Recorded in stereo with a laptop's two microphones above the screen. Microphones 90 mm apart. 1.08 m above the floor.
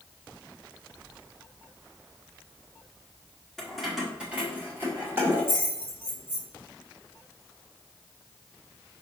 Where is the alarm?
No alarm in this recording.